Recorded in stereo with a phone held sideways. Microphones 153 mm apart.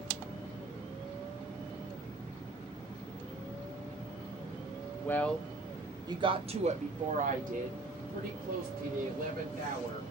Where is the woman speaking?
15° left (ahead or behind), 0.8 m; by 10.1 s 70° right (ahead or behind), 2.5 m.